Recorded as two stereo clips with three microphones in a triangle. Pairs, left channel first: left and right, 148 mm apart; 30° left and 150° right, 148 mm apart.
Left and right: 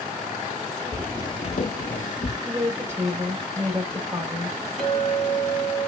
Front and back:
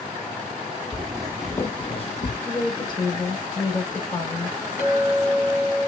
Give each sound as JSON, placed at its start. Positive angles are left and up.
{"t": 0.9, "sound": "footsteps", "azimuth_deg": 175, "distance_m": 0.7}
{"t": 2.5, "sound": "a woman speaking", "azimuth_deg": -25, "distance_m": 1.7}
{"t": 4.8, "sound": "a clink", "azimuth_deg": 0, "distance_m": 1.3}